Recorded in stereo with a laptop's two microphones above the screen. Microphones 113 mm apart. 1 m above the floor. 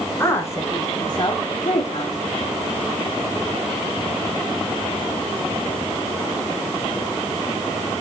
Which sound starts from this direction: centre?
A woman speaking, at 0.2 s.